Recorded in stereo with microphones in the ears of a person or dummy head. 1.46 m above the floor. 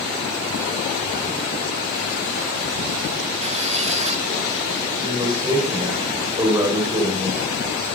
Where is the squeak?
35° right (ahead or behind), 1.9 m.